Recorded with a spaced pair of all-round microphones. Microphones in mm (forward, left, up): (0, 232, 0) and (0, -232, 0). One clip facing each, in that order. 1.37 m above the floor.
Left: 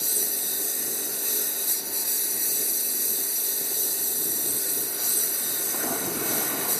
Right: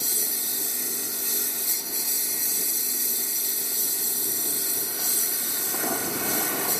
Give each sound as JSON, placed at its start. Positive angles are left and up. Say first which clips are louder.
{"t": 0.0, "sound": "a lawn mower", "louder": "left 1 dB", "side_deg": -20}